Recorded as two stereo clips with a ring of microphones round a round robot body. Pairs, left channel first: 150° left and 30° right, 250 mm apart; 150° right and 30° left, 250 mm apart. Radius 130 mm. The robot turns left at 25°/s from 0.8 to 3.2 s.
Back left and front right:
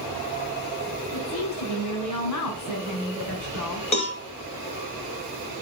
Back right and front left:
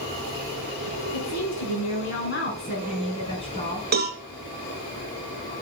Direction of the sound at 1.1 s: 165° right.